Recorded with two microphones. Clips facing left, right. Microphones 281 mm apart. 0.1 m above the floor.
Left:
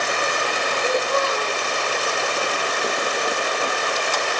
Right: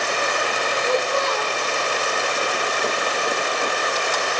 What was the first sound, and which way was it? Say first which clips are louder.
A child speaking: even; 35° left (ahead or behind).